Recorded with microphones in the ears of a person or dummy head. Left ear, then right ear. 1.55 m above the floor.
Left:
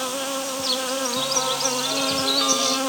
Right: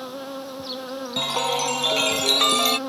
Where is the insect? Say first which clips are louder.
Left 7 dB; 60° left (ahead or behind).